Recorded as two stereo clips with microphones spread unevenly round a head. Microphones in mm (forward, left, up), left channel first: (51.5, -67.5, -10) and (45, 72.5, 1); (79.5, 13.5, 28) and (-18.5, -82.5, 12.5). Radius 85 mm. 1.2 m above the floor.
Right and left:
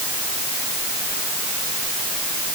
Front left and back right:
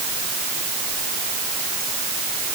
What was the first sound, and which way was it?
Only background noise.